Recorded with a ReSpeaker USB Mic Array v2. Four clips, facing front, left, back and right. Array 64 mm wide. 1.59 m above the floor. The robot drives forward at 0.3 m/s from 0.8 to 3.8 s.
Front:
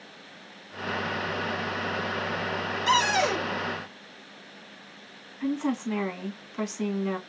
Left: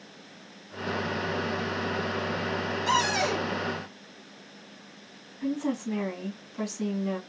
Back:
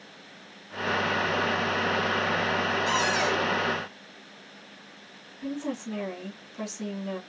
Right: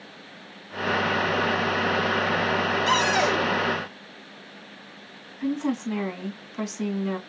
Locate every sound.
2.9 s a cupboard door: 45° right, 3 m
5.4 s a woman speaking: 35° right, 2.5 m